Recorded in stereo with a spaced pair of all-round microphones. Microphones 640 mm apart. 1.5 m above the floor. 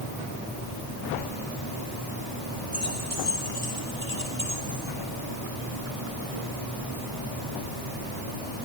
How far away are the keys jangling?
About 8 m.